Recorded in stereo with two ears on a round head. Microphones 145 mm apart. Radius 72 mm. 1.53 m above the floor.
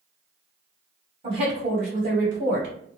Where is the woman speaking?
35° right (ahead or behind), 1.6 m; by 2.8 s 65° right (ahead or behind), 1.4 m.